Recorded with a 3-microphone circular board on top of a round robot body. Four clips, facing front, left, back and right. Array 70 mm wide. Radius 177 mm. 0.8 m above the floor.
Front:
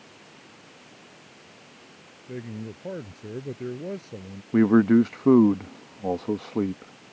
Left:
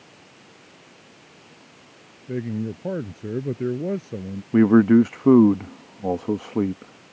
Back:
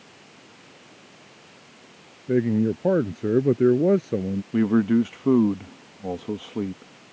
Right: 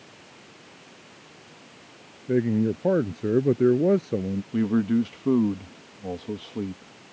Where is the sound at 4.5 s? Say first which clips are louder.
Left 9 dB, front 3 dB; 60° left.